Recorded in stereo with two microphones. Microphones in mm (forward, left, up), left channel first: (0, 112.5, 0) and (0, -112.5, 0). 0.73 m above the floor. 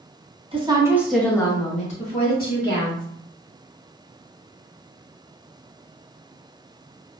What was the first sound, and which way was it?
A woman speaking, 25° right (ahead or behind).